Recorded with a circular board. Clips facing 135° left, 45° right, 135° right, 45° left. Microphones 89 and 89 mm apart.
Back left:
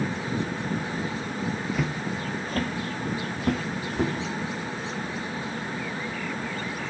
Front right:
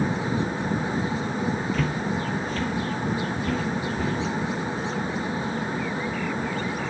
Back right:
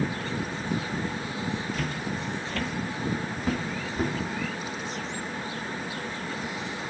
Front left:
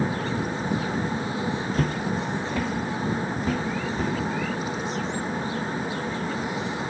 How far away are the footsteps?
About 0.5 m.